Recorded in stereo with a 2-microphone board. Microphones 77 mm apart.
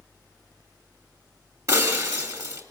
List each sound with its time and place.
1.7 s breaking glass: 45° right (ahead or behind), 4.5 m